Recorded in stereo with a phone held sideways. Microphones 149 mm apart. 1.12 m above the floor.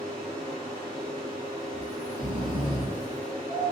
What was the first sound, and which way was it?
A fan, 40° right (ahead or behind).